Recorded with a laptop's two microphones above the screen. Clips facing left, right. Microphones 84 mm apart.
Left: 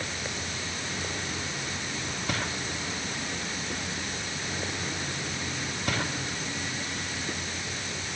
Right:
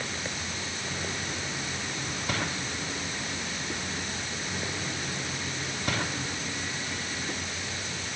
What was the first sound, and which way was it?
Only background noise.